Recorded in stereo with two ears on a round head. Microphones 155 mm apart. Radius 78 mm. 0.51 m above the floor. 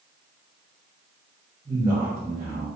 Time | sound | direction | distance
1.6 | a man speaking | 25° right (ahead or behind) | 1.0 m